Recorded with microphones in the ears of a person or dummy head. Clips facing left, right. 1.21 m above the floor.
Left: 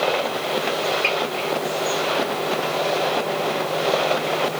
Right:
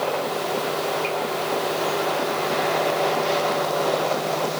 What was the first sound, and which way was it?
Only background noise.